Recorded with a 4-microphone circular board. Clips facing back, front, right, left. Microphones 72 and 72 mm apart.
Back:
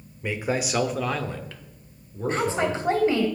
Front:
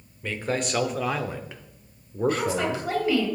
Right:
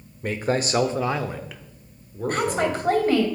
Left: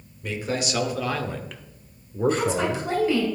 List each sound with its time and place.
0.2 s a man speaking: 110° right, 1.3 m; by 2.9 s 45° left, 1.5 m
2.3 s a woman speaking: 125° right, 2.5 m